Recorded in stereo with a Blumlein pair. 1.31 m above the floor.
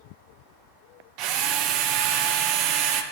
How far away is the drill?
About 0.6 m.